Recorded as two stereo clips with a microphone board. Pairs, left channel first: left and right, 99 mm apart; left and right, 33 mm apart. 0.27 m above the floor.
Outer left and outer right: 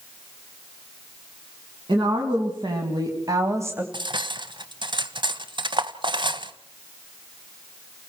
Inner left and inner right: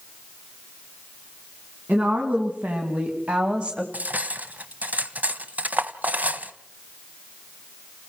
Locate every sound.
1.9 s a woman speaking: 60° right (ahead or behind), 3 m; by 3.8 s 20° right (ahead or behind), 1.7 m
3.9 s cutlery clinking: 55° right (ahead or behind), 1.2 m